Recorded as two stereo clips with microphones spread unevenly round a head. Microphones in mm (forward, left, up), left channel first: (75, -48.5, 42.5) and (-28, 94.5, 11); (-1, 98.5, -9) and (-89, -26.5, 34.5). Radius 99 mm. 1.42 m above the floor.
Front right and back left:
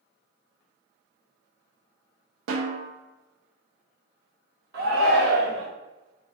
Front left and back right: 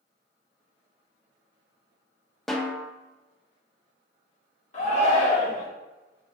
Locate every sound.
2.5 s a snare drum: 145° left, 0.5 m
4.7 s a shout: 95° left, 1.6 m